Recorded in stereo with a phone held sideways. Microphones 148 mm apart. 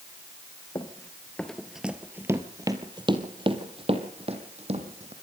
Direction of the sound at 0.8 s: 25° left (ahead or behind).